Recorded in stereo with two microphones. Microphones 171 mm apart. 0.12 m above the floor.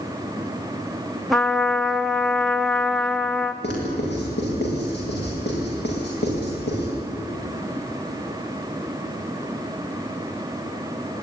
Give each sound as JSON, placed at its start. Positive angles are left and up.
{"t": 1.3, "sound": "a trumpet", "side_deg": 0, "distance_m": 1.1}
{"t": 3.6, "sound": "writing", "side_deg": 80, "distance_m": 9.5}